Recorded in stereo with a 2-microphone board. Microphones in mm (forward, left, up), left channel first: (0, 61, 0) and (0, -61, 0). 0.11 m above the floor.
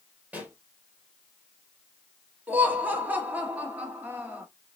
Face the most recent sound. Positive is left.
turn(degrees=-15)  # may be behind; listen again after turning